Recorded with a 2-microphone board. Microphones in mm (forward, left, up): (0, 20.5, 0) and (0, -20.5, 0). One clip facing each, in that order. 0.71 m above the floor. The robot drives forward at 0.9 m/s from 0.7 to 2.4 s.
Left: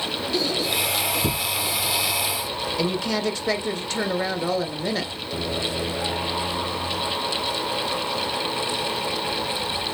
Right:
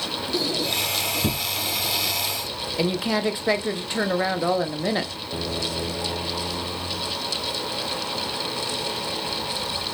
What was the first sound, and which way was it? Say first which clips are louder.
A squeak: left 1 dB; 20° right (ahead or behind).